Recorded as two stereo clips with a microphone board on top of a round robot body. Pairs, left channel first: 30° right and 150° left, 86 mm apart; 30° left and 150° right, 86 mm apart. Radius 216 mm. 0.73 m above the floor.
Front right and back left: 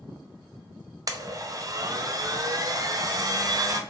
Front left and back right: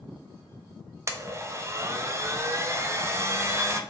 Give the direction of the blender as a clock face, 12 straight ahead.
6 o'clock.